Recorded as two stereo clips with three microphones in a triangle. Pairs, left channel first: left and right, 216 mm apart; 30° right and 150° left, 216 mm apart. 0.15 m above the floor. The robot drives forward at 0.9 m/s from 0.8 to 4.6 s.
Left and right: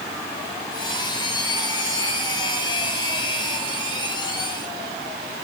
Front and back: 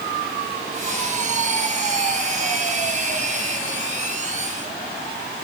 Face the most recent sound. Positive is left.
No sound to turn to.